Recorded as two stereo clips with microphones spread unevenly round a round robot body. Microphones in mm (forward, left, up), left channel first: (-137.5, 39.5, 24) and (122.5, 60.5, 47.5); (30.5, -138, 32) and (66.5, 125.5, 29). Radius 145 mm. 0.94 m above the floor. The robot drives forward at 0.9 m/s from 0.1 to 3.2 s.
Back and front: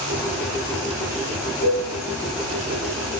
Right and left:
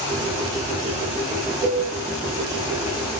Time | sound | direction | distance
1.6 | a cowbell | 20° left | 8.5 m